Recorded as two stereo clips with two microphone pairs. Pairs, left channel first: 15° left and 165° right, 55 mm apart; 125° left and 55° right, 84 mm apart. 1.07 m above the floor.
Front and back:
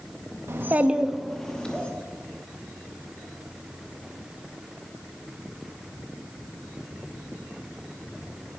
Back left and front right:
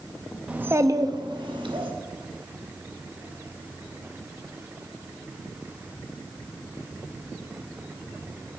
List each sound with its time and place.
0.5 s a child speaking: 130° right, 0.5 m; by 1.9 s 50° right, 1.1 m